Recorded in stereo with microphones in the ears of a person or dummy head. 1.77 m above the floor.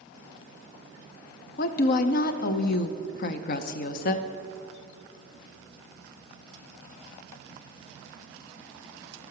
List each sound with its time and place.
1.6 s a woman speaking: 60° left (ahead or behind), 0.6 m